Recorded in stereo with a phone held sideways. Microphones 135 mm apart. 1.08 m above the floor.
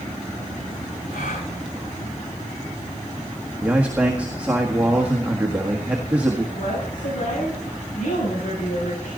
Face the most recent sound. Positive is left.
turn(degrees=70)  # may be behind; listen again after turning